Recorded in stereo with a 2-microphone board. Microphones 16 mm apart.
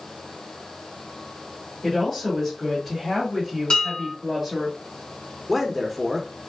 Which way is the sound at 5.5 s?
Centre (ahead or behind).